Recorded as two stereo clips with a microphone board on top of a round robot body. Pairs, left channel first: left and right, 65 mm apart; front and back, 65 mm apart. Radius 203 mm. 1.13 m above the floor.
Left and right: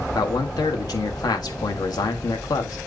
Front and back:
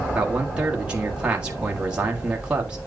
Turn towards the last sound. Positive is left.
turn(degrees=105)